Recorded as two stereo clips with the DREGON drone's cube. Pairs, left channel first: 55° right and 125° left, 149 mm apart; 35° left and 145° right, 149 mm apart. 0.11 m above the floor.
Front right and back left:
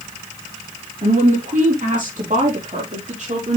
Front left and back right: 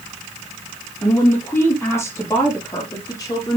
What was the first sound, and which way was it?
A woman speaking, 110° left.